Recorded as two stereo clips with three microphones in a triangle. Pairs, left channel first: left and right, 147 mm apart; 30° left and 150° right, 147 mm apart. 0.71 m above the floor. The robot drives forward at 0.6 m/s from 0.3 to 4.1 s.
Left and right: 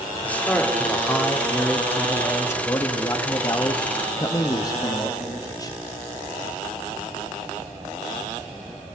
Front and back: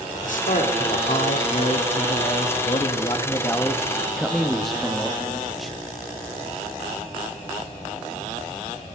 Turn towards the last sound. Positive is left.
turn(degrees=120)